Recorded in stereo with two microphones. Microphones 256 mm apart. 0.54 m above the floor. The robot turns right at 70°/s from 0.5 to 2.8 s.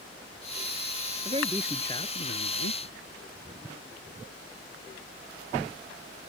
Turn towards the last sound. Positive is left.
turn(degrees=75)